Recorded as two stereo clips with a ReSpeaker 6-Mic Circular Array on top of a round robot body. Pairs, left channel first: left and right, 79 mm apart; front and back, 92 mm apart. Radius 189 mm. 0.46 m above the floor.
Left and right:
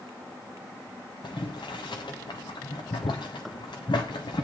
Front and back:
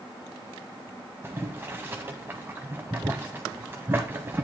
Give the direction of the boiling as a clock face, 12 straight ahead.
8 o'clock.